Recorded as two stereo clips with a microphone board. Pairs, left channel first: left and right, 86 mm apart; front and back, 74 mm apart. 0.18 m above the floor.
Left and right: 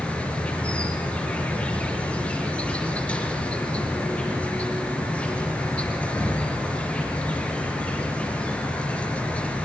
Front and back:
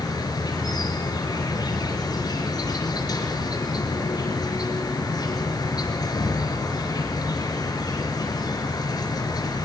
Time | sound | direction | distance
0.0 | an insect | 15° left | 4.5 m